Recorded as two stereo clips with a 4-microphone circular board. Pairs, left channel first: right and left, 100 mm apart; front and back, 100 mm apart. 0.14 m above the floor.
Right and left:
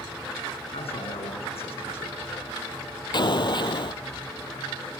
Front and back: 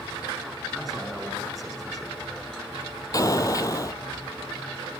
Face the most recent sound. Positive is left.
turn(degrees=-50)